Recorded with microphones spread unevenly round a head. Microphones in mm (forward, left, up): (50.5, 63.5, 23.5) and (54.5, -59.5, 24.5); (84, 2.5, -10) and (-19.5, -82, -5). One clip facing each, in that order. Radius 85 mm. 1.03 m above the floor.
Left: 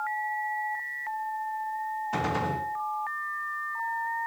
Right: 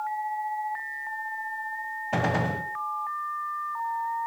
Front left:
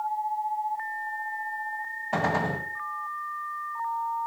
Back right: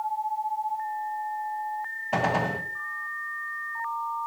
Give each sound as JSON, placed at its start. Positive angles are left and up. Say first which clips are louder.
{"t": 2.1, "sound": "a gunshot", "louder": "right 4 dB, back right 1 dB", "azimuth_deg": -65, "distance_m": 3.0}